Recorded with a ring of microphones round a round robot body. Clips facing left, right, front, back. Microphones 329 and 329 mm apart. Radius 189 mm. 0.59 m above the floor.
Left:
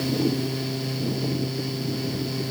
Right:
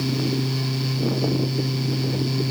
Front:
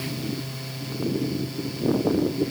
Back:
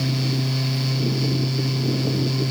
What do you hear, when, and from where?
Only background noise.